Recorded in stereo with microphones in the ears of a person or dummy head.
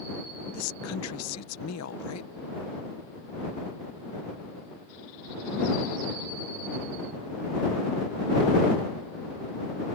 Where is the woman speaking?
85° left.